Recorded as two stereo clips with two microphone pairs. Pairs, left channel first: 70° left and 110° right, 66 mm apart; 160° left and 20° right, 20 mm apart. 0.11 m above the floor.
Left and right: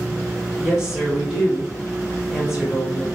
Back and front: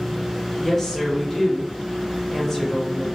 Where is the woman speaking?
175° right, 1.6 m.